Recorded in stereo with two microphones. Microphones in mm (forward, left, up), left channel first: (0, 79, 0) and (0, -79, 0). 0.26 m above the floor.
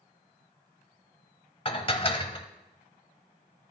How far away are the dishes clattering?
About 0.8 m.